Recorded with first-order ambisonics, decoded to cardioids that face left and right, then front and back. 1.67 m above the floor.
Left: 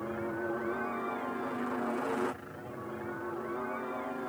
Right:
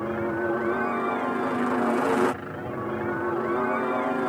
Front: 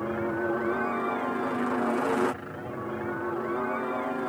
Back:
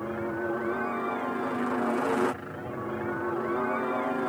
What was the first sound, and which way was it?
A helicopter, 70° right.